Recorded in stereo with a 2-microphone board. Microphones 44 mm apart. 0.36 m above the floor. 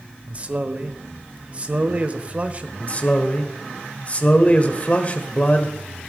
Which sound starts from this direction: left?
A man speaking, at 2.8 s.